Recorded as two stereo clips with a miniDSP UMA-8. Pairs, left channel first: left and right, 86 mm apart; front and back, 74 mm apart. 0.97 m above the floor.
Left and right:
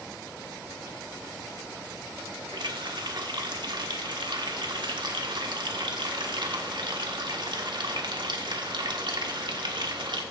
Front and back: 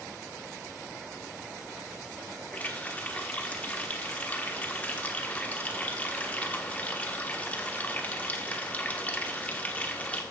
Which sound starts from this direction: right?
A running tap, at 2.5 s.